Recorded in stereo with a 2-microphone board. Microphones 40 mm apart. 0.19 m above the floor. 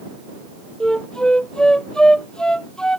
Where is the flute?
20° left (ahead or behind).